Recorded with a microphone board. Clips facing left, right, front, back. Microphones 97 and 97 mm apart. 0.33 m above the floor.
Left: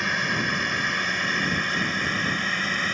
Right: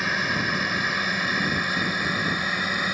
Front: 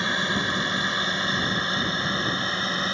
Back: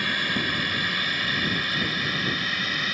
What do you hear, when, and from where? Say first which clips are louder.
0.0 s a drone: even, front 2 dB; 5° right; by 3.0 s 20° right